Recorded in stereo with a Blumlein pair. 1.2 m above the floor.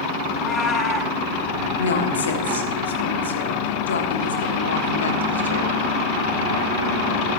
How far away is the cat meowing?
About 2 m.